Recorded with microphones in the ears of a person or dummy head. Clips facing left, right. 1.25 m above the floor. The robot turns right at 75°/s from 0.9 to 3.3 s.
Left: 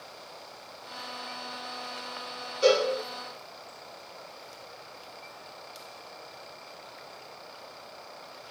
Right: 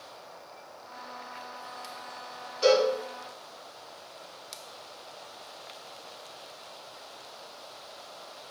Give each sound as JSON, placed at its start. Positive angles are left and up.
{"t": 2.6, "sound": "a cowbell", "side_deg": 20, "distance_m": 2.0}